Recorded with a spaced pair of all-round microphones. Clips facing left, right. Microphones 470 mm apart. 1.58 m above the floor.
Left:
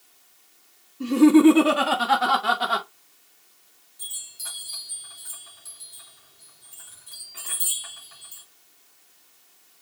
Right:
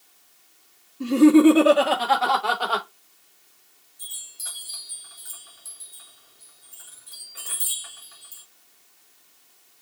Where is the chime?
80° left, 3.5 m.